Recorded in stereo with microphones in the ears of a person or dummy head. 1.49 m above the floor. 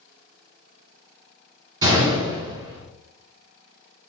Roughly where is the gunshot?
Right.